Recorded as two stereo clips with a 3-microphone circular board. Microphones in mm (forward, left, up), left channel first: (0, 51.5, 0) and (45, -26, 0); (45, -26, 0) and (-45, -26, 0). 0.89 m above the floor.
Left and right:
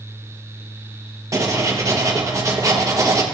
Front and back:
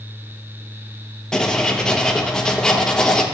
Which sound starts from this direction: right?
Writing, at 1.3 s.